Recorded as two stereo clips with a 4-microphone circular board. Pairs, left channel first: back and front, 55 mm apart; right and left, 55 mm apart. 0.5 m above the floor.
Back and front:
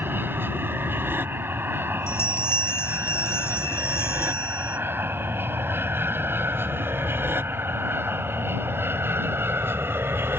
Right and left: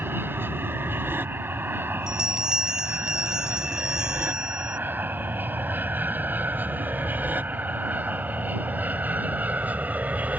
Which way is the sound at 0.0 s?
45° left.